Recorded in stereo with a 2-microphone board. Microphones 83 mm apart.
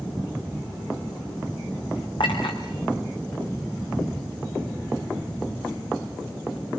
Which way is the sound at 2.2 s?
70° left (ahead or behind).